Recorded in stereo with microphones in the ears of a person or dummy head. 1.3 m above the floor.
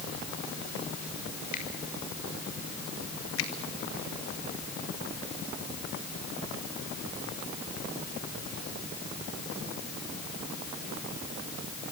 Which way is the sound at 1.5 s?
50° left (ahead or behind).